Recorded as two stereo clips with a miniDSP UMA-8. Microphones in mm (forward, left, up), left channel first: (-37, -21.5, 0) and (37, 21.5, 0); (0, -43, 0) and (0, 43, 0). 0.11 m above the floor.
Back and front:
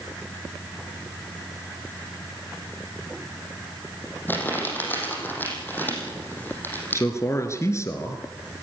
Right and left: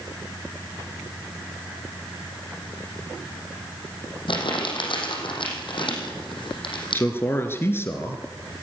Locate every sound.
4.3 s crumpling: 85° right, 5.5 m
6.9 s a man speaking: 130° right, 1.5 m